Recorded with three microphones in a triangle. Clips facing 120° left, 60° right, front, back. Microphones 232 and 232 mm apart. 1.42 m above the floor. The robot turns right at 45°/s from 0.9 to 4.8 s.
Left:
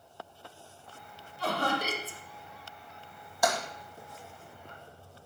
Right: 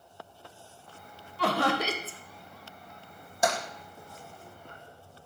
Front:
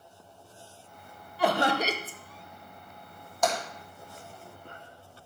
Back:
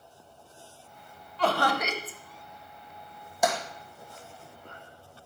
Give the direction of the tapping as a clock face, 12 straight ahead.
4 o'clock.